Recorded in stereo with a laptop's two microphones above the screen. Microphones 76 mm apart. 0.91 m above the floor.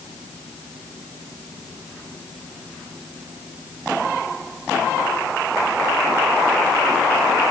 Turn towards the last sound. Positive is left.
No sound to turn to.